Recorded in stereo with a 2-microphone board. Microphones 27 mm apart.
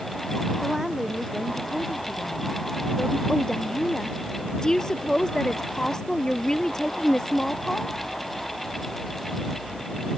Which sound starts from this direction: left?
A woman speaking, at 3.3 s.